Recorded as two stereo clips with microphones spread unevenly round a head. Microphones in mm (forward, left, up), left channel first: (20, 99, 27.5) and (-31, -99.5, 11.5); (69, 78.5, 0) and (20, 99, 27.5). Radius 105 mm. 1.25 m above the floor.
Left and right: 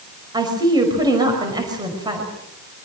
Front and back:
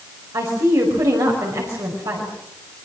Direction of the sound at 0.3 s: 175° right.